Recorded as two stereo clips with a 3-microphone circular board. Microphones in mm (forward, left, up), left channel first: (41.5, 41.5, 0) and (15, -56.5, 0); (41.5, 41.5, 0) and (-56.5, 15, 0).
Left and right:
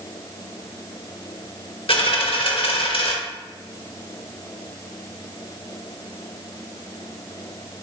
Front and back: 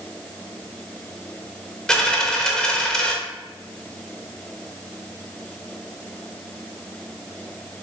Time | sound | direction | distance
1.9 | a dropped coin | 100° left | 0.8 m